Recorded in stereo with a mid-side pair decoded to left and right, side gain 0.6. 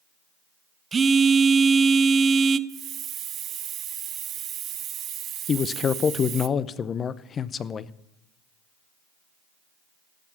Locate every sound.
0.9 s a phone buzzing: 30° right, 0.6 m
2.7 s a hiss: 55° right, 0.6 m
5.5 s a man speaking: 40° left, 0.6 m